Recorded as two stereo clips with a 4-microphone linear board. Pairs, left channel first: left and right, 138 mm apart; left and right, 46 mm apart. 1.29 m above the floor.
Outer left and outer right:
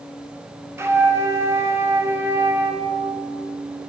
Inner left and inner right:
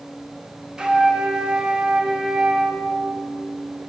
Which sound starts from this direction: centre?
A flute, at 0.8 s.